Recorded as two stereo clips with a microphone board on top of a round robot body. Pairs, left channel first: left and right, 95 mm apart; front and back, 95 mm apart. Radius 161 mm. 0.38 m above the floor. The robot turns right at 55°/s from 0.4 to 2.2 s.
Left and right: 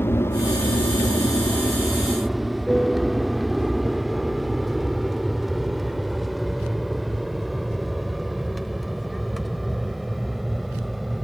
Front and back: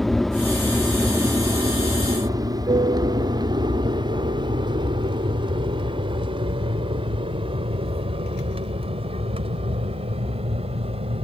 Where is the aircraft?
85° left; by 11.2 s straight behind.